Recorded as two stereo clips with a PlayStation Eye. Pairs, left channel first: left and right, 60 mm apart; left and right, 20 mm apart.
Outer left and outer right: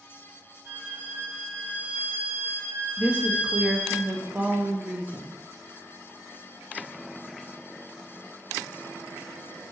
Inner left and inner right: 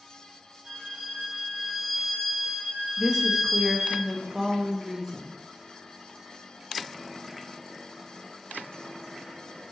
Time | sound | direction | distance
0.7 | a violin | 35° right (ahead or behind) | 1.4 m
3.0 | a woman speaking | 25° right (ahead or behind) | 0.5 m